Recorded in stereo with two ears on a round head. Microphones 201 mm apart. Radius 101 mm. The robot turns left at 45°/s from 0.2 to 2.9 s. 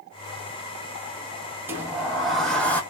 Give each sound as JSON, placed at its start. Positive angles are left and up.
{"t": 1.7, "sound": "a sliding door", "side_deg": -10, "distance_m": 0.7}